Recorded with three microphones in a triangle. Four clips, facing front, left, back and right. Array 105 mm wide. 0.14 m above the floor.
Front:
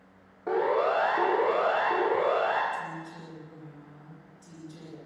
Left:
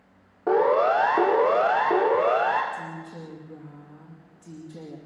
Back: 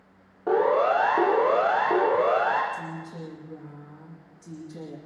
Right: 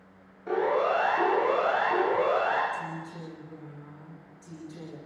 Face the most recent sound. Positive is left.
turn(degrees=135)